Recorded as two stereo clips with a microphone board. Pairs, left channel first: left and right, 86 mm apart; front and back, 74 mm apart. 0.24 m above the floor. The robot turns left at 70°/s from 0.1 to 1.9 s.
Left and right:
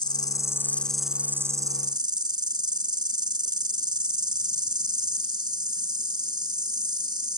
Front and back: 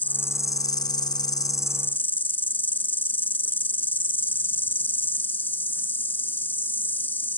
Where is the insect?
65° left; by 7.4 s 65° right.